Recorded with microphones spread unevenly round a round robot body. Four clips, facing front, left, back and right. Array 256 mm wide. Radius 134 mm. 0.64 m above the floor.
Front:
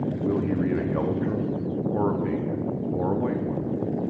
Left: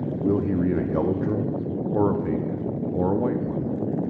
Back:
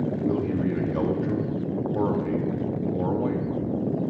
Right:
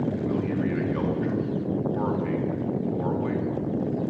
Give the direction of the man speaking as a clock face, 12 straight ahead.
9 o'clock.